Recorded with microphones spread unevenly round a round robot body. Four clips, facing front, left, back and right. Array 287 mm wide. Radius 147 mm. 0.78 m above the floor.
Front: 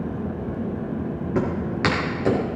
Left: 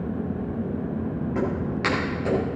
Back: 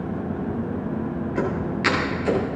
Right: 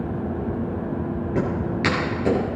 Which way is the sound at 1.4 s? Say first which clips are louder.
Right 3 dB, front 2 dB; 35° right.